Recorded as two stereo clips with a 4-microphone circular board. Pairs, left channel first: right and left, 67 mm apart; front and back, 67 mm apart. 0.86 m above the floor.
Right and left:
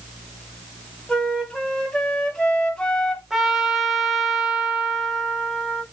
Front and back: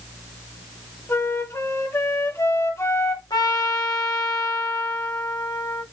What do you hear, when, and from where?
1.1 s a flute: 20° right, 0.9 m
3.3 s a trumpet: 5° left, 1.0 m